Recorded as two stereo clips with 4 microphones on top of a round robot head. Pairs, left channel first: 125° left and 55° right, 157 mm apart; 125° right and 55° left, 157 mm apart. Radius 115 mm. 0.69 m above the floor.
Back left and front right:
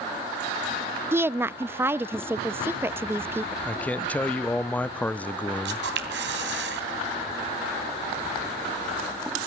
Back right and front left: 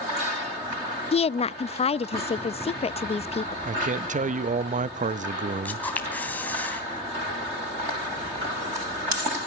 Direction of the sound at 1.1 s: 120° right.